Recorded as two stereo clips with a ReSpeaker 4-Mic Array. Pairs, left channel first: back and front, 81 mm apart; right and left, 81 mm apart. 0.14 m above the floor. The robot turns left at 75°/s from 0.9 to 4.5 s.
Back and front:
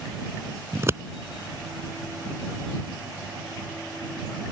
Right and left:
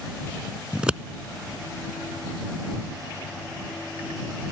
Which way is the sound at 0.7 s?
20° left.